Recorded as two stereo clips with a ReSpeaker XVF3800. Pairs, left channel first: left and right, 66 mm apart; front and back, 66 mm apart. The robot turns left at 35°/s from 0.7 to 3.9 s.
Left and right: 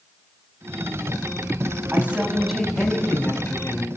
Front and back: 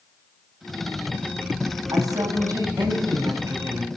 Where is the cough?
I don't hear a cough.